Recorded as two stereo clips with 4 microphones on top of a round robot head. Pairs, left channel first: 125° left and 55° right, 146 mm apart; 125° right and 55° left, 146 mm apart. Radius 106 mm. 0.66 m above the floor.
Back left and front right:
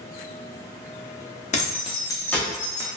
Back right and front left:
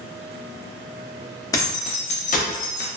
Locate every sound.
1.5 s keys jangling: 165° left, 0.8 m; by 2.9 s 125° right, 0.7 m